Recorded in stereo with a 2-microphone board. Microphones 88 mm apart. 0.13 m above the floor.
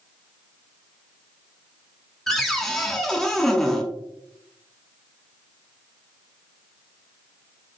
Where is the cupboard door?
5° left (ahead or behind), 0.7 m.